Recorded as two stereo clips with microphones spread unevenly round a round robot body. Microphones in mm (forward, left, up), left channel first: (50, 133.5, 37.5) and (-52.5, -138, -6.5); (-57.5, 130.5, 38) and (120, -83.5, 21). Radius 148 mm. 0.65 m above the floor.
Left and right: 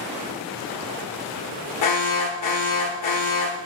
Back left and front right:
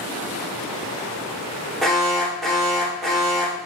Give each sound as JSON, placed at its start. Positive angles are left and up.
{"t": 1.8, "sound": "an alarm", "azimuth_deg": 40, "distance_m": 1.2}